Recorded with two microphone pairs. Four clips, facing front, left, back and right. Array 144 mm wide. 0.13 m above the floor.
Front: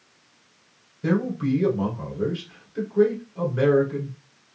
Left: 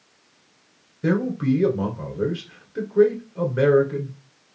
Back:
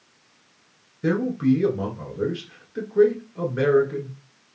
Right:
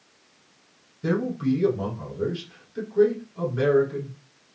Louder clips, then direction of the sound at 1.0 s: Left 3 dB, back 3 dB; 130° left.